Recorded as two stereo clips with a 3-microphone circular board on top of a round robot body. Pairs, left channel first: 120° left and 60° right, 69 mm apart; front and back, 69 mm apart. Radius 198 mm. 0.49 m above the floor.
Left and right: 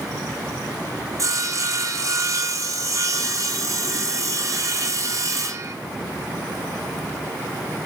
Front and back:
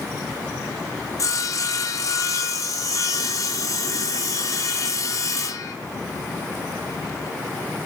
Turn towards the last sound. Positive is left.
turn(degrees=-30)